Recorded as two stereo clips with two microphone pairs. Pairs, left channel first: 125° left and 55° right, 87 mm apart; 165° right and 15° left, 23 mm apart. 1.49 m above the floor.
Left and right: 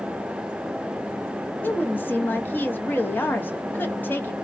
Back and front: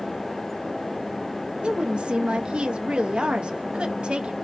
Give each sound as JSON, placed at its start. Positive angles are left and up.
{"t": 1.6, "sound": "a woman speaking", "azimuth_deg": 55, "distance_m": 0.7}